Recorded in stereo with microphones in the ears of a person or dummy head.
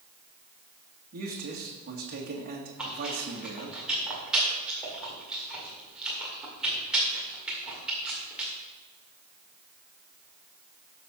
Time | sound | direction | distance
1.1 | a man speaking | 50° right (ahead or behind) | 1.8 m
2.8 | chewing | 10° right (ahead or behind) | 1.8 m